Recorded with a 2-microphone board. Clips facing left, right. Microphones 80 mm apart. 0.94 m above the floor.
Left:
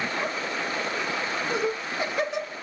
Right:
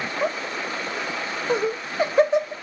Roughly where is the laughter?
Right.